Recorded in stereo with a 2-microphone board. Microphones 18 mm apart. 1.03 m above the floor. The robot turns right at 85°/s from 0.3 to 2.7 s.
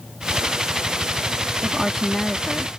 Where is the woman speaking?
30° right; by 2.7 s 60° left.